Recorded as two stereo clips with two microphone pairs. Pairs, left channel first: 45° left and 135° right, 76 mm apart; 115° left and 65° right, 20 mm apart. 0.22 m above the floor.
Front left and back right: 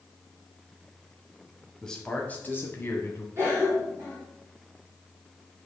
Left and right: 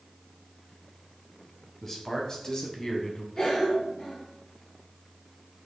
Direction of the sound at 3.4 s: 175° left.